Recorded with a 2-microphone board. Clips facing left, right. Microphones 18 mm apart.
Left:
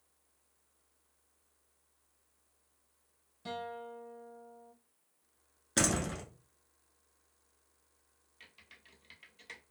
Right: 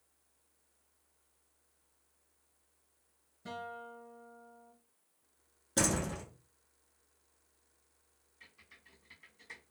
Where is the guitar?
65° left (ahead or behind), 1.6 m.